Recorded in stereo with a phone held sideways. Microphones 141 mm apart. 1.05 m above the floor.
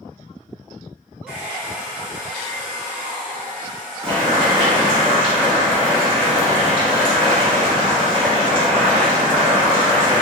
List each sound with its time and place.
1.3 s a hair dryer: 5° right (ahead or behind), 0.9 m
4.0 s boiling: 40° right (ahead or behind), 1.6 m